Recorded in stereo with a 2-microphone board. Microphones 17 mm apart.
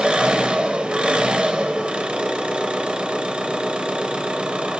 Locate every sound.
0.0 s an engine running: 65° right (ahead or behind), 0.7 m